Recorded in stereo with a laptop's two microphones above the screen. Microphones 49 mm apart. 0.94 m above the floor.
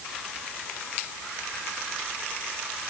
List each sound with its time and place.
Only background noise.